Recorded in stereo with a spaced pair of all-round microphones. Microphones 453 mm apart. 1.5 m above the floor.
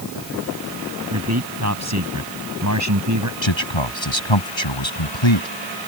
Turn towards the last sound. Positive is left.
turn(degrees=80)